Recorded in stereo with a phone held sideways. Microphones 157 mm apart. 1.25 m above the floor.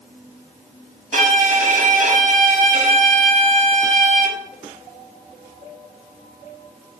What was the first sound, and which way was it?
A violin, 55° right (ahead or behind).